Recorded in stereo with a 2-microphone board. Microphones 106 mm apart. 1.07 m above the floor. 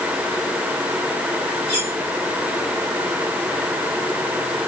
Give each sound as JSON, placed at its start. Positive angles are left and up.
{"t": 1.7, "sound": "cutlery clinking", "side_deg": 20, "distance_m": 6.0}